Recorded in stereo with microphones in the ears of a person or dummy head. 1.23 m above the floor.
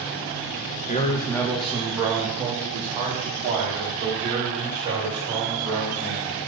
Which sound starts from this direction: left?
A man speaking, at 0.9 s.